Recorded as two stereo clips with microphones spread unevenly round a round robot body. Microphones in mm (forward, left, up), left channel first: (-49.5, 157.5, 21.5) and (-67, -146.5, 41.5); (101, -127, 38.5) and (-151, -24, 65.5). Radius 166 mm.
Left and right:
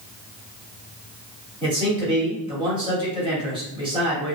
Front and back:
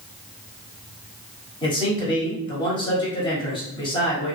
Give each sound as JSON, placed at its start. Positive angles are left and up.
{"t": 1.6, "sound": "a man speaking", "azimuth_deg": -35, "distance_m": 1.5}